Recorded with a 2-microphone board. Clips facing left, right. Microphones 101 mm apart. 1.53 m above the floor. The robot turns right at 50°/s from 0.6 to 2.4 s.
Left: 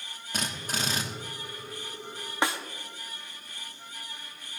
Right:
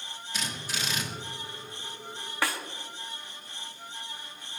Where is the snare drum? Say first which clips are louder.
Left 2 dB; 25° left (ahead or behind), 1.0 m.